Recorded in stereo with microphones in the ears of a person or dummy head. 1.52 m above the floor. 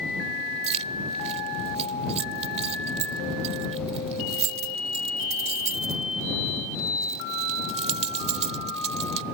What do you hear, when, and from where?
0.6 s keys jangling: 30° right (ahead or behind)